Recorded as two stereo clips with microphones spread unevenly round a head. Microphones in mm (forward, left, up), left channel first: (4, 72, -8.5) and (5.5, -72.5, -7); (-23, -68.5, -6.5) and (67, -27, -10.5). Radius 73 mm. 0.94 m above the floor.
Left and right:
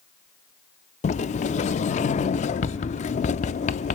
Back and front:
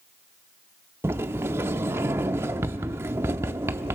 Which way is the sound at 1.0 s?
90° left.